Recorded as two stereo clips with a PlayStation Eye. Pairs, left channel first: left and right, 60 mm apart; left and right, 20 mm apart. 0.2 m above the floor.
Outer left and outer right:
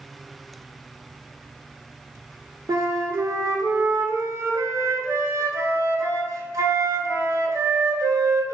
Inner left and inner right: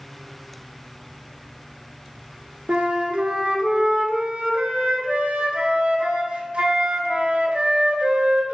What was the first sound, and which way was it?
A flute, 70° right (ahead or behind).